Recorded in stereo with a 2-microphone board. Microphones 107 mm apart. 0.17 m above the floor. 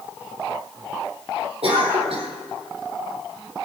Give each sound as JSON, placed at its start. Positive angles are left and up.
{"t": 1.6, "sound": "a cough", "side_deg": -65, "distance_m": 6.0}